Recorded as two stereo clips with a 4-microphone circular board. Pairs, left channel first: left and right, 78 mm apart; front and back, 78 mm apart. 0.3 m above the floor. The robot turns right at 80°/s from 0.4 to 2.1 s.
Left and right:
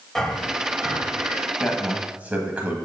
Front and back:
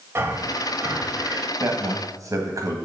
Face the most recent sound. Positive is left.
turn(degrees=-155)